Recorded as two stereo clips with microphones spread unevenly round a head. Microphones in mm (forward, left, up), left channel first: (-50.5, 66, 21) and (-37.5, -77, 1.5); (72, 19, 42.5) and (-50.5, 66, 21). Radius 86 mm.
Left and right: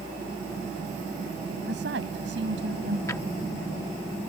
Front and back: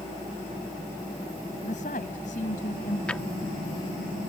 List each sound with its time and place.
1.6 s a woman speaking: 70° right; by 3.0 s 65° right
3.1 s a drawer: 45° left